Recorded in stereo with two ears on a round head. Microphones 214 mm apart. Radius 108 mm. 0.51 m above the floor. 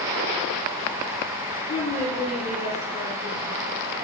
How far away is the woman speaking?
About 1.3 m.